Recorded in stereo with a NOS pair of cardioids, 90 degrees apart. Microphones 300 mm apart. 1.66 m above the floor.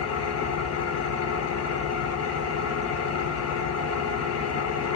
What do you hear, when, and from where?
0.0 s an engine running: 55° left, 0.8 m